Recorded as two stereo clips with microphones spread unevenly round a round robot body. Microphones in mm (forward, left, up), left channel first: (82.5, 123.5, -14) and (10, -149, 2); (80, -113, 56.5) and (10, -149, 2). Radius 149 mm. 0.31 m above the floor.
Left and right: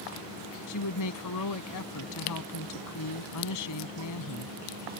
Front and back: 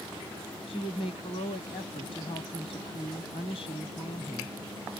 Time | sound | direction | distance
0.7 | a woman speaking | 90° left | ?